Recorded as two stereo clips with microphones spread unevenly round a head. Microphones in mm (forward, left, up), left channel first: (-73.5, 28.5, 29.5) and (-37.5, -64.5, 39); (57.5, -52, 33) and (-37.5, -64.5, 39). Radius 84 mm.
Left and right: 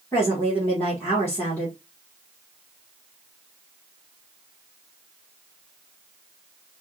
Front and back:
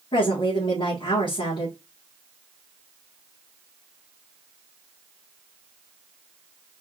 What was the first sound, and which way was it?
A woman speaking, 45° left.